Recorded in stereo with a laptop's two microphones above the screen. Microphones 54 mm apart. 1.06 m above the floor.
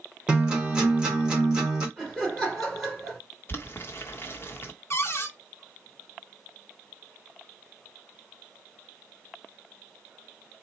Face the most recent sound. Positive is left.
turn(degrees=50)  # may be behind; listen again after turning